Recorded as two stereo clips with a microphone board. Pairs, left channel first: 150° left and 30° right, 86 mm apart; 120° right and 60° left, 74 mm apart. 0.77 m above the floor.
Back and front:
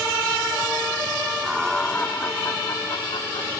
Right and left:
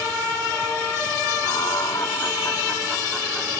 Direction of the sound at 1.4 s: 115° right.